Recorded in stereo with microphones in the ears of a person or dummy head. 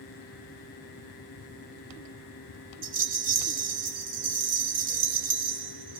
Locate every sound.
2.8 s a rattle: 40° right (ahead or behind), 1.8 m